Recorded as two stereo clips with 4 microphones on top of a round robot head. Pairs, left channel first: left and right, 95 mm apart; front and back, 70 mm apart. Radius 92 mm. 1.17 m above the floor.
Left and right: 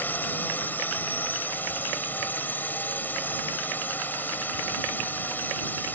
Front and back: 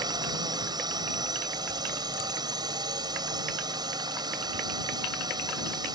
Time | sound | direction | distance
0.0 | a drone | 160° left | ?